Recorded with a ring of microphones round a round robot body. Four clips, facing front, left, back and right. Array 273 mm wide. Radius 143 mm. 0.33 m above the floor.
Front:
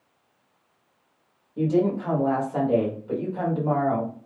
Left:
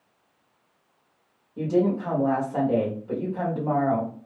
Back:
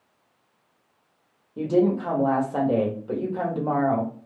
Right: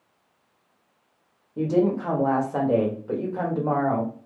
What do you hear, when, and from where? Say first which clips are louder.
1.6 s a woman speaking: right 1 dB, back 1 dB; 125° right, 1.4 m